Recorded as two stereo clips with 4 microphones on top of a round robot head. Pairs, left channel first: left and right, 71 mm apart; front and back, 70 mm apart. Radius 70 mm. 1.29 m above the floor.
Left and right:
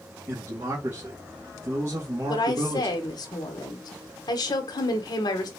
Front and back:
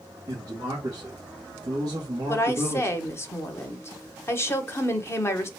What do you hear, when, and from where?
0.3 s a man speaking: 135° right, 2 m
2.3 s a woman speaking: 50° left, 0.9 m